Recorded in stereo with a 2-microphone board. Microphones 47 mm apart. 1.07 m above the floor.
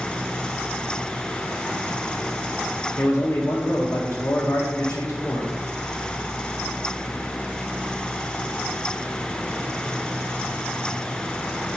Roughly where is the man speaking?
Left.